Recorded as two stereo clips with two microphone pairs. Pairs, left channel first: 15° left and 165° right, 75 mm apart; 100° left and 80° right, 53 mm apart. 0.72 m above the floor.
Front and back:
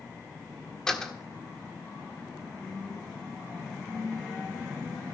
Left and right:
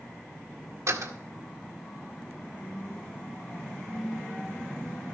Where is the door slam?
65° right, 1.6 m.